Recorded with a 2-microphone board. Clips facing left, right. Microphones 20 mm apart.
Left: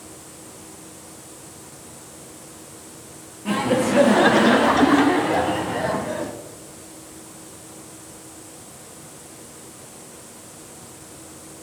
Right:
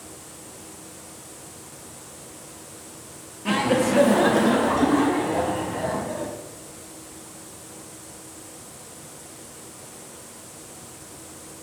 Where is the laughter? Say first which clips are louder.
Even; 30° right (ahead or behind), 0.7 m; by 6.3 s 70° left (ahead or behind), 2.0 m.